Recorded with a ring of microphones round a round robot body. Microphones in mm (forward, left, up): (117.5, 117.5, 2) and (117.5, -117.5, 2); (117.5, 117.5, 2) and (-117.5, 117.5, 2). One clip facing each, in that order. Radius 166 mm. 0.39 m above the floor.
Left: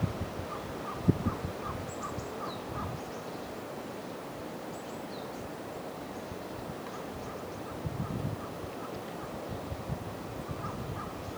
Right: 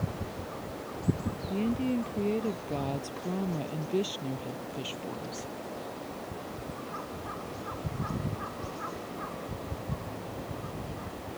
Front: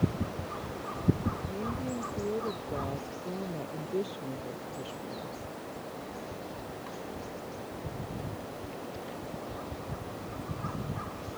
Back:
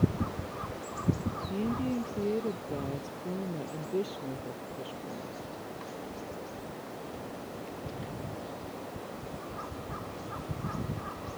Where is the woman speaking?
120° right; by 5.5 s 85° right.